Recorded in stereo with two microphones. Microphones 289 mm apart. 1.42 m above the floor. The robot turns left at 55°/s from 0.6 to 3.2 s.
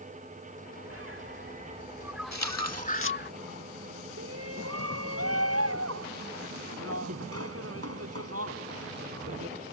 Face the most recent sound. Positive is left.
turn(degrees=-55)  # may be behind; listen again after turning